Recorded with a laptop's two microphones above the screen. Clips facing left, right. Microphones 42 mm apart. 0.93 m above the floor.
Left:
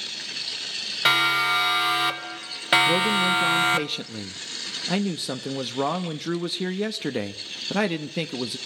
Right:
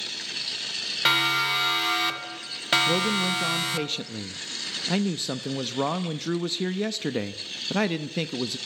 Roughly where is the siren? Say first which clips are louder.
Left 3 dB; centre.